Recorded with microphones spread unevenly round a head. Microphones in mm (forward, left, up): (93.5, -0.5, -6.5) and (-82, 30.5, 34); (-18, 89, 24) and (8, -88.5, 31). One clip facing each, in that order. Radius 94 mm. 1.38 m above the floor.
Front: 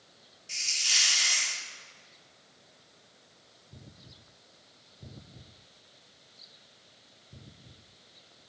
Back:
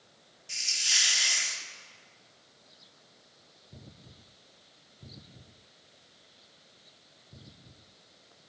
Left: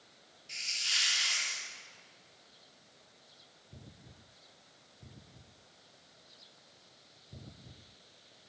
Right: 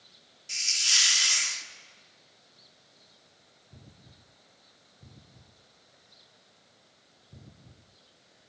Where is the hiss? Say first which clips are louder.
Even, right 5 dB; 110° right, 1.8 m.